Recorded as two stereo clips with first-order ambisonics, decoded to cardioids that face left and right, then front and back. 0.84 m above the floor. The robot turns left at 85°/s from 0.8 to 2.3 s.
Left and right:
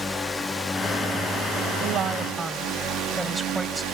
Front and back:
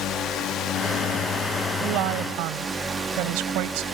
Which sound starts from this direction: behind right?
A woman speaking, at 1.8 s.